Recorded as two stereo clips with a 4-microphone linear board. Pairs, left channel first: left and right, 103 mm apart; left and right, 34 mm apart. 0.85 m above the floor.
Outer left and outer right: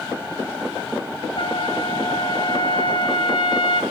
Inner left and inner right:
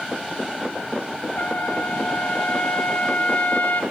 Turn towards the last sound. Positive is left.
turn(degrees=55)  # may be behind; listen again after turning